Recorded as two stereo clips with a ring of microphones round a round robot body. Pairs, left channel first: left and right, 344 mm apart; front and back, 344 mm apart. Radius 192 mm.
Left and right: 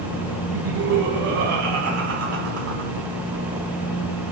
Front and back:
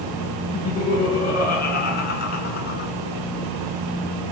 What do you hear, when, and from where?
0.5 s laughter: 55° right, 1.5 m